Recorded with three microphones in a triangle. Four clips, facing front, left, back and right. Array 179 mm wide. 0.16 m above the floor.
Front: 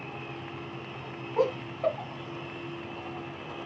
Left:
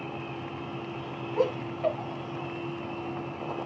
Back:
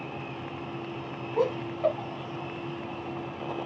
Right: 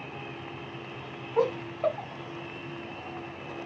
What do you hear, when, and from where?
1.4 s laughter: 85° right, 1.1 m